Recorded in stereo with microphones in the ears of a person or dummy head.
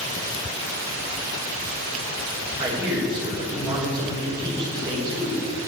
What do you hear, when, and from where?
2.6 s a man speaking: 20° right (ahead or behind), 4.5 m